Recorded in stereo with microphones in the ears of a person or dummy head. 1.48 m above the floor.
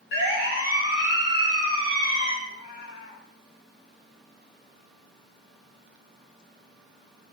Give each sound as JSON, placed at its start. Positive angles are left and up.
{"t": 0.1, "sound": "a siren", "side_deg": 65, "distance_m": 9.0}
{"t": 2.5, "sound": "a cat meowing", "side_deg": 55, "distance_m": 3.5}